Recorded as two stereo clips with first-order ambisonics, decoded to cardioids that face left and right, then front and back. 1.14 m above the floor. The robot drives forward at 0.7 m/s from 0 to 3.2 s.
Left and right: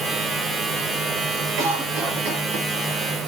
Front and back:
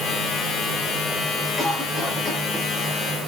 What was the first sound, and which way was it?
A cough, 70° right.